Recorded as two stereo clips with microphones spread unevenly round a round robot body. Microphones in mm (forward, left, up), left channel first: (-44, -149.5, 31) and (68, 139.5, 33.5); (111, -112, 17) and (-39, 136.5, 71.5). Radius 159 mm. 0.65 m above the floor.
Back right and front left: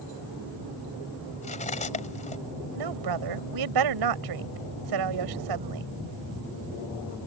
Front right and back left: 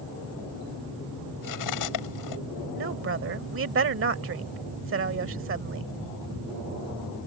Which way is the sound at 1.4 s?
45° right.